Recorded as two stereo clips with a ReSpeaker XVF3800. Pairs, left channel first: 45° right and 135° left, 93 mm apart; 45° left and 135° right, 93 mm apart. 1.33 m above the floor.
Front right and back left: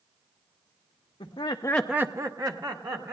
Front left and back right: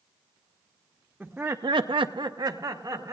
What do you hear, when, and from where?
1.2 s laughter: 50° right, 0.9 m; by 3.1 s 170° left, 2.5 m